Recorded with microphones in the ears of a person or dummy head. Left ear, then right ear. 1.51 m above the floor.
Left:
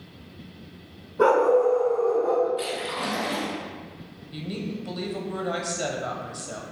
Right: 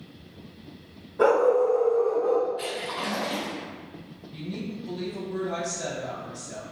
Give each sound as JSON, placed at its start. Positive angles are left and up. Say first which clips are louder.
{"t": 1.2, "sound": "a dog barking", "louder": "left 1 dB", "side_deg": -10, "distance_m": 0.9}
{"t": 2.6, "sound": "a splash", "louder": "left 2 dB", "side_deg": 40, "distance_m": 1.9}
{"t": 4.3, "sound": "a woman speaking", "louder": "left 3 dB", "side_deg": 50, "distance_m": 0.8}